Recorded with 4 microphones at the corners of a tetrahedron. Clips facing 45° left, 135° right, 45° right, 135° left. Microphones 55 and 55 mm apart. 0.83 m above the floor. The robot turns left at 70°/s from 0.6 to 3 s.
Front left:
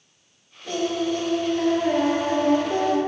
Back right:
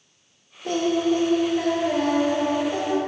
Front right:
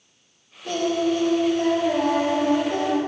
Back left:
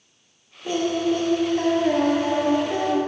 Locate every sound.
0.7 s singing: 155° right, 1.2 m; by 3.0 s 45° left, 1.2 m